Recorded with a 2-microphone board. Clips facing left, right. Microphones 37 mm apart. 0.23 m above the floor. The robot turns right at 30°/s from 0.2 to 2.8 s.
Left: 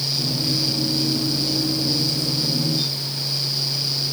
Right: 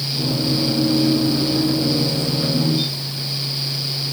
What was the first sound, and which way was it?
Only background noise.